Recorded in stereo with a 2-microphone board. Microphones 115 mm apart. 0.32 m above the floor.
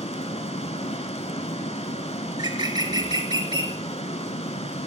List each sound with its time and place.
0.0 s running water: 65° left (ahead or behind), 0.8 m
2.3 s a bird: 40° right (ahead or behind), 0.8 m